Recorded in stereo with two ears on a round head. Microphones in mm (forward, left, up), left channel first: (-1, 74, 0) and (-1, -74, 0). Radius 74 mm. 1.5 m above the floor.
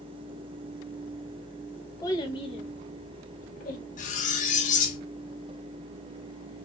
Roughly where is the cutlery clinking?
Left.